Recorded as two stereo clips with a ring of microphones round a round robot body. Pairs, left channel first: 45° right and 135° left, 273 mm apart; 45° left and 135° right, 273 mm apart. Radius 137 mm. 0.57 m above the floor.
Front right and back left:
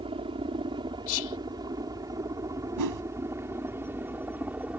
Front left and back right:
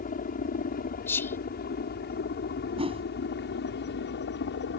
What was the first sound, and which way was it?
A helicopter, 80° left.